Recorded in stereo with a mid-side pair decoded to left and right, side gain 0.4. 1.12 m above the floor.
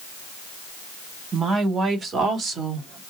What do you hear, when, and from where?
1.3 s a woman speaking: 50° right, 2.5 m; by 3.0 s 80° right, 2.5 m